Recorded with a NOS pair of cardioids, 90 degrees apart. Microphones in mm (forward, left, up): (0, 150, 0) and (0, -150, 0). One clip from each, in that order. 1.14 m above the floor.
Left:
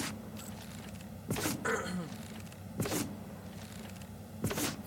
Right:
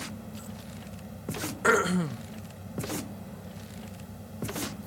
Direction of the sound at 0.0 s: 35° right.